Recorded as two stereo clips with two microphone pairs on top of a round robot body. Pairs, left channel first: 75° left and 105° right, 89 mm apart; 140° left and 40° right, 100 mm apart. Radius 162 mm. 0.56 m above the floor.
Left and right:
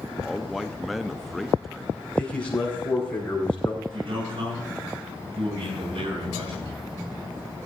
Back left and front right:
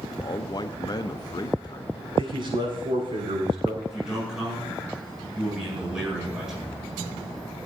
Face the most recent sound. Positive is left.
turn(degrees=-125)